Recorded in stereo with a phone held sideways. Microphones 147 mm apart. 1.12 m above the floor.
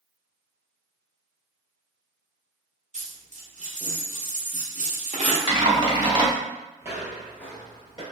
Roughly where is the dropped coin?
Right.